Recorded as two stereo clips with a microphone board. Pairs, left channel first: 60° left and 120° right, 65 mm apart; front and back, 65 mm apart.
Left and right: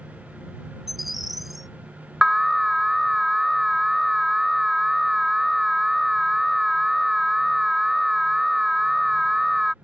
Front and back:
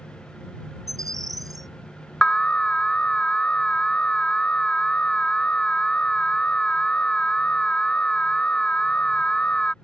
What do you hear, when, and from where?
0.9 s a bird: 155° left
2.2 s an alarm: 40° right